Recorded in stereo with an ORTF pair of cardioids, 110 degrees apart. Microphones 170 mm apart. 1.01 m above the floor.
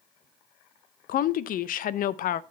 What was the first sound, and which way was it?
A woman speaking, 60° left.